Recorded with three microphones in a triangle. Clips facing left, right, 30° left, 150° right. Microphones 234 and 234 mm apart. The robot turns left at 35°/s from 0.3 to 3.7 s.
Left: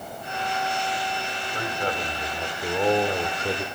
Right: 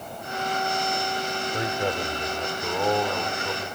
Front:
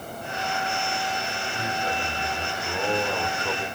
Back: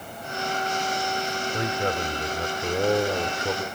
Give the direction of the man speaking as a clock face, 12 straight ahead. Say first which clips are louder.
Right 1 dB, back 4 dB; 5 o'clock.